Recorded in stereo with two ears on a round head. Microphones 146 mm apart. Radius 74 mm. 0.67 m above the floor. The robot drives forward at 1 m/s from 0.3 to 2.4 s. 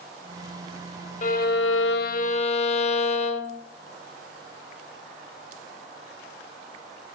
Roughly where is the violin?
Left.